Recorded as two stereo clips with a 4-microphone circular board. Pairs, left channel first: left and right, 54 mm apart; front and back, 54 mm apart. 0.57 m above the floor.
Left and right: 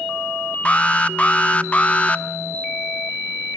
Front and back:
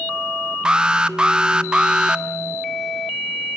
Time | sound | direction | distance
0.7 | an alarm | 125° left | 0.9 m